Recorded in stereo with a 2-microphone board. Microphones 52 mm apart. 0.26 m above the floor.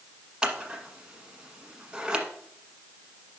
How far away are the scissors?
About 1.2 m.